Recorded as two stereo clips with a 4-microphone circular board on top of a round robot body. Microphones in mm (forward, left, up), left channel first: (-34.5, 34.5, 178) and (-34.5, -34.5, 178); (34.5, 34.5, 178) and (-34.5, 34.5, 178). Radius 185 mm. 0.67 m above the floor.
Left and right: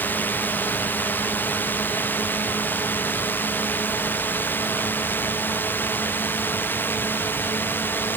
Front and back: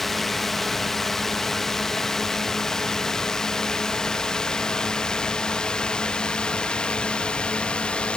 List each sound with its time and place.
0.0 s a drone: 85° left; by 8.2 s 65° left